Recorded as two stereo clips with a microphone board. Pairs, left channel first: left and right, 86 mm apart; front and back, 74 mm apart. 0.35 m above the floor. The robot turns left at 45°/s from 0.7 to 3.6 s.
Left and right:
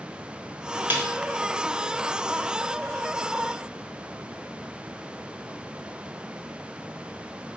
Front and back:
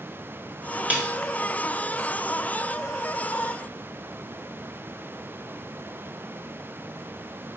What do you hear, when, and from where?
0.9 s a snare drum: 130° right, 1.0 m; by 1.1 s 140° right, 1.0 m